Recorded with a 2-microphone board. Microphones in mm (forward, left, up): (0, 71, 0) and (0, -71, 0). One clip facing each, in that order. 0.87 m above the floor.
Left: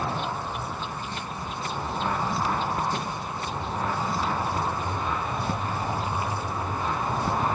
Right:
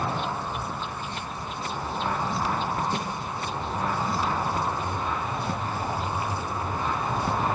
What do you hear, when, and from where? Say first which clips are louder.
2.9 s a snare drum: right 1 dB; 15° right (ahead or behind), 9 m